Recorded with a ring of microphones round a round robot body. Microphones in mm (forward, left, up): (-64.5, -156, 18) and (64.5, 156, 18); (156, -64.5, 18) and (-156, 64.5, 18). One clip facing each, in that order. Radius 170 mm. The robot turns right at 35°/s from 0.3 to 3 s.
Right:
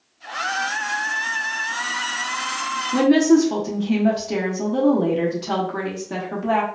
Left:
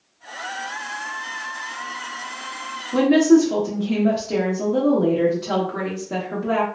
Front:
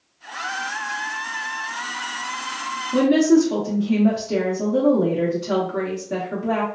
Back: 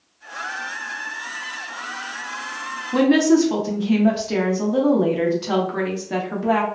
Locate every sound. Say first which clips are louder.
2.9 s a woman speaking: left 1 dB, even; 175° right, 0.7 m; by 6.7 s 170° right, 0.7 m